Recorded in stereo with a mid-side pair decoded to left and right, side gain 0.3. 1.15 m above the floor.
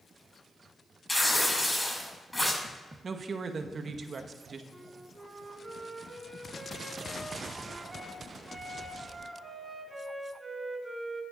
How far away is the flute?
About 3 m.